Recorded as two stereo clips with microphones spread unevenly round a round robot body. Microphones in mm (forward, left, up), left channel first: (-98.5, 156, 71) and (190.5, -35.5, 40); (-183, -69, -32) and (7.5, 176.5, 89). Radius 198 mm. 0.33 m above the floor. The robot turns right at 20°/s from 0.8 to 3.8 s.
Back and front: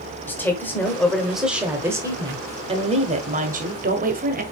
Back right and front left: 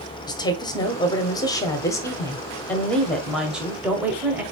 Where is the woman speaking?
125° right, 1.1 m; by 4.4 s 65° right, 1.1 m.